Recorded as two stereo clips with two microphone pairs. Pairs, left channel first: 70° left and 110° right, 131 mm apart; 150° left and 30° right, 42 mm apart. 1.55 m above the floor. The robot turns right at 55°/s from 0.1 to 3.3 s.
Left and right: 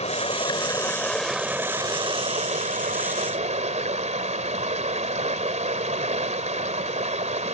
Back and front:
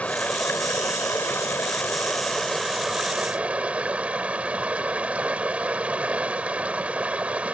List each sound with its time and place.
0.0 s running water: 95° left; by 7.5 s 85° right